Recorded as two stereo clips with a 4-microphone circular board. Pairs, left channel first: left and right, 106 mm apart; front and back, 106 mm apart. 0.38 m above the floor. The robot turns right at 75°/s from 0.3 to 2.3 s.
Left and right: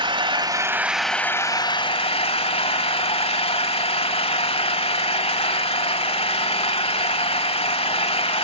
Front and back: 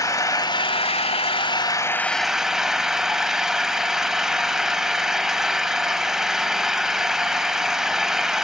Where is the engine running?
55° right, 1.4 m; by 8.4 s 95° left, 1.4 m.